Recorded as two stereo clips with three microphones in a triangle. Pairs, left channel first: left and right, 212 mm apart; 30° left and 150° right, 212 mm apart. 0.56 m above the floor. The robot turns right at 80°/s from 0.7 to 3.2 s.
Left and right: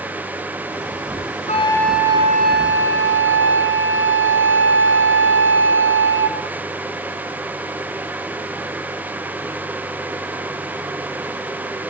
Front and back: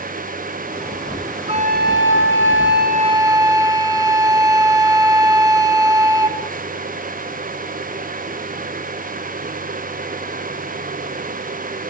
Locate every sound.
1.5 s a flute: 145° left, 2.5 m; by 6.4 s 75° right, 2.5 m